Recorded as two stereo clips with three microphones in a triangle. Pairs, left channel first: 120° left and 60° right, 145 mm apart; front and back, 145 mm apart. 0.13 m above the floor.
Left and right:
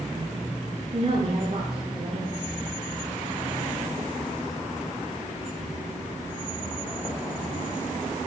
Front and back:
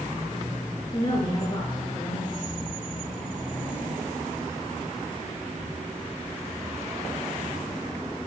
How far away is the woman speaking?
About 2 m.